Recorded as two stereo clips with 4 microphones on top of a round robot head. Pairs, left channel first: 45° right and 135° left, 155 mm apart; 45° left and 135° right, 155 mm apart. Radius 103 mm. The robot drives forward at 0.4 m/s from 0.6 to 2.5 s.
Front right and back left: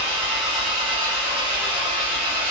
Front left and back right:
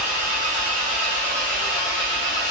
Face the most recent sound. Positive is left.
turn(degrees=-170)